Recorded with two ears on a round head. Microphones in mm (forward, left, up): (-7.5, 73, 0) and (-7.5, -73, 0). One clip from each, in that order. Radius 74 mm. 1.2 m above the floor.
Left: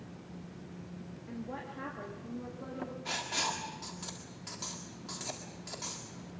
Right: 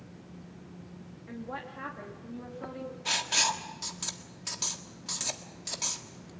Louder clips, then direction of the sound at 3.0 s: Right 7 dB; 55° right (ahead or behind).